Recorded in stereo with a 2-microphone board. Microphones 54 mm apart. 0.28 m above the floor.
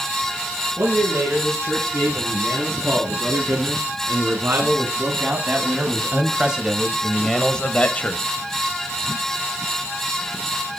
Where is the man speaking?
45° right (ahead or behind), 5 m; by 8.2 s 35° left (ahead or behind), 1.2 m.